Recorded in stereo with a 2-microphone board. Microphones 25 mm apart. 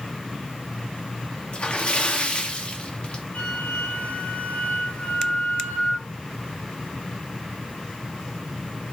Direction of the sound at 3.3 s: 75° left (ahead or behind).